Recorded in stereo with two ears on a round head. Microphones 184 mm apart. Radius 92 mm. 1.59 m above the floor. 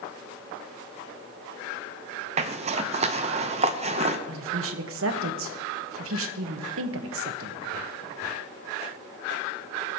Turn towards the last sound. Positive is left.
turn(degrees=-70)  # may be behind; listen again after turning